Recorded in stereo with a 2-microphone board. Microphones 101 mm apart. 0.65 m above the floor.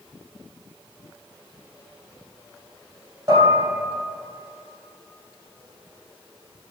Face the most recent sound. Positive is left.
turn(degrees=-40)  # may be behind; listen again after turning